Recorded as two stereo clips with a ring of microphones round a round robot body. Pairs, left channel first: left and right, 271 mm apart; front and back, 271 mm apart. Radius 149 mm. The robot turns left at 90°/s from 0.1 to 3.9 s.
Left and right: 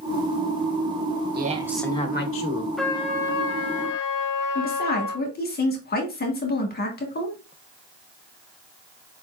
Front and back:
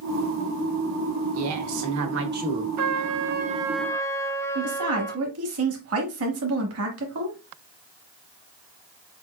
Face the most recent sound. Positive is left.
turn(degrees=145)